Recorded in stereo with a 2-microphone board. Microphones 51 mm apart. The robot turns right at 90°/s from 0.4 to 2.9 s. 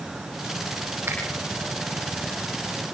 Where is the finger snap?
55° right (ahead or behind), 9.5 m; by 1.2 s 65° right (ahead or behind), 9.5 m.